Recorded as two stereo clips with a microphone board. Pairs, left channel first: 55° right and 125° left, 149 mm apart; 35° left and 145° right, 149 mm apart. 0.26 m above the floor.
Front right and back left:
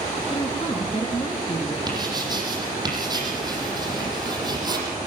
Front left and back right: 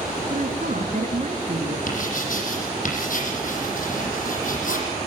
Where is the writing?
65° left, 8 m.